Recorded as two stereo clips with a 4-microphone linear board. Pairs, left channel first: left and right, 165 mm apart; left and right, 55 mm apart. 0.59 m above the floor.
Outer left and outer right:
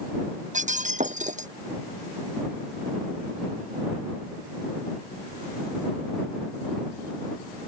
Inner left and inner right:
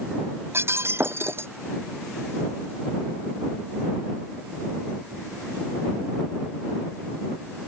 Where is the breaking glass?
50° right (ahead or behind).